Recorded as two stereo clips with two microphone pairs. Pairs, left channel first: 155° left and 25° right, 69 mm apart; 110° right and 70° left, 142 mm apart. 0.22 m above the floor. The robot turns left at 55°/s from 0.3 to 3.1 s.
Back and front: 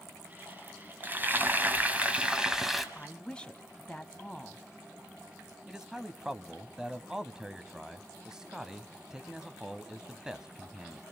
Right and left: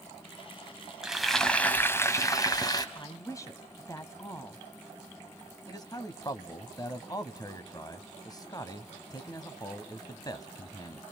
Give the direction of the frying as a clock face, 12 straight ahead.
12 o'clock.